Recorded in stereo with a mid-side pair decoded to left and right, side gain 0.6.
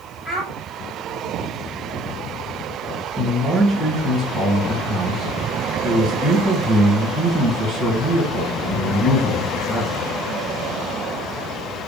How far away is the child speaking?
About 4 m.